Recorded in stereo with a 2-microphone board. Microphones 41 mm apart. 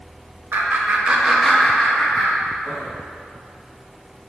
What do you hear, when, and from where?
0.5 s laughter: 65° right (ahead or behind), 0.6 m; by 2.9 s 40° left (ahead or behind), 1.3 m